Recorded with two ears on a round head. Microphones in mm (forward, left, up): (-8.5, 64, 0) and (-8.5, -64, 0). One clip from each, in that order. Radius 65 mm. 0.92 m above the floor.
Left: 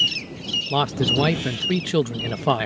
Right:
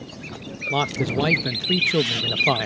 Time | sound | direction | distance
0.7 | a man speaking | 5° left (ahead or behind) | ?